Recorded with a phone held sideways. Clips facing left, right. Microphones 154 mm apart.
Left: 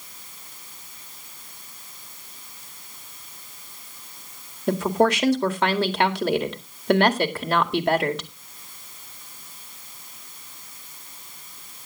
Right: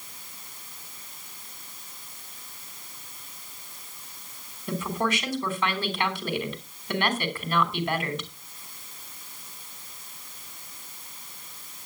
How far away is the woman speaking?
About 2 m.